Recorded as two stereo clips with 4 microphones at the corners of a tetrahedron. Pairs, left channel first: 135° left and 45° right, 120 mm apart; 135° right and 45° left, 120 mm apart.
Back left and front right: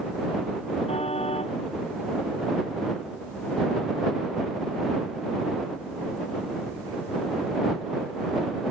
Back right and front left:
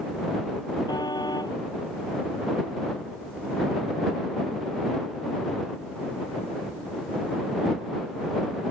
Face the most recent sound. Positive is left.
turn(degrees=170)